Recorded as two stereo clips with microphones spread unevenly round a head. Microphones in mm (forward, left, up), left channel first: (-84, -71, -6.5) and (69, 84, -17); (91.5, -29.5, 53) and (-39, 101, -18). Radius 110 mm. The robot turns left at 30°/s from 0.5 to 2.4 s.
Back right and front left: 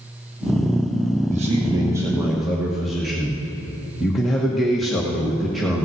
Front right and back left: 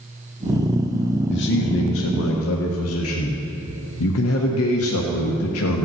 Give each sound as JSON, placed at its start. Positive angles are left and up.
{"t": 1.3, "sound": "a man speaking", "azimuth_deg": -10, "distance_m": 1.1}